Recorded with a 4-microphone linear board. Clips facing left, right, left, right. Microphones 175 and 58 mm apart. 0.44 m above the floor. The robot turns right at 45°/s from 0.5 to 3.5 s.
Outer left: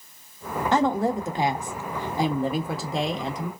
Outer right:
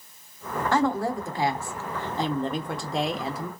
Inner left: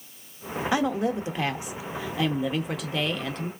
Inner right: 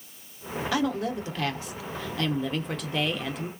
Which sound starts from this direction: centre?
A woman speaking, at 0.7 s.